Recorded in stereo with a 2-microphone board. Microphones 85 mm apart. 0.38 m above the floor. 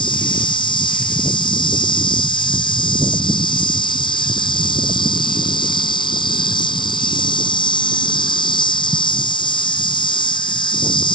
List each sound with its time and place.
0.0 s an insect: 65° left (ahead or behind)